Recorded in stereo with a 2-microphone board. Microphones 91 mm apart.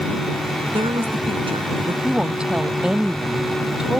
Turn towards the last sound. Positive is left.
turn(degrees=-10)  # may be behind; listen again after turning